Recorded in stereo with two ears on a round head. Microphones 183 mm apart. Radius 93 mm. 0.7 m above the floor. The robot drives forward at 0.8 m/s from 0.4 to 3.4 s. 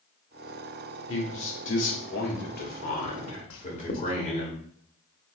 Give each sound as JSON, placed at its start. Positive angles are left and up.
{"t": 1.1, "sound": "a man speaking", "side_deg": 65, "distance_m": 1.7}
{"t": 3.5, "sound": "writing", "side_deg": 65, "distance_m": 0.7}